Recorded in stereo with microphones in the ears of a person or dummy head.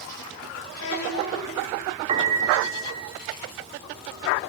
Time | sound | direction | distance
0.7 | a child speaking | 80° left | 5.5 m
2.1 | a piano | 30° right (ahead or behind) | 2 m